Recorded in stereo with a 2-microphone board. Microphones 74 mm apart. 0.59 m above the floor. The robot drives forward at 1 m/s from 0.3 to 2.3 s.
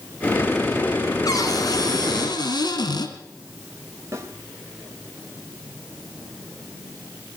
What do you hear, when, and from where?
1.2 s a cupboard door: 55° left (ahead or behind), 3.5 m; by 3.1 s 75° left (ahead or behind), 3 m
4.1 s a snare drum: 40° right (ahead or behind), 3 m